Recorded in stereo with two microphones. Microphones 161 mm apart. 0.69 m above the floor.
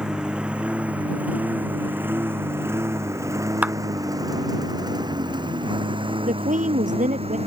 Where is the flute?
I don't hear a flute.